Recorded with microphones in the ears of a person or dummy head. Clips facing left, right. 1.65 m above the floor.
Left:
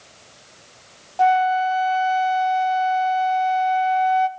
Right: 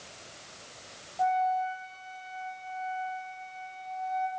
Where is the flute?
80° left, 0.6 m.